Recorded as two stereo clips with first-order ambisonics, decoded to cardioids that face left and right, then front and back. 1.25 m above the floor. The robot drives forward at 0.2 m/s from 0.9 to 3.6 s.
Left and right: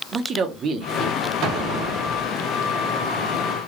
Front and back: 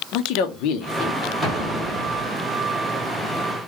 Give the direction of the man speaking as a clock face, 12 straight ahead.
1 o'clock.